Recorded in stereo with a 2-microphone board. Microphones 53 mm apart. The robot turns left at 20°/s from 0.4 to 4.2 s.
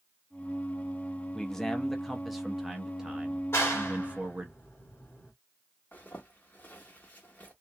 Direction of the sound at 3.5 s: 50° left (ahead or behind).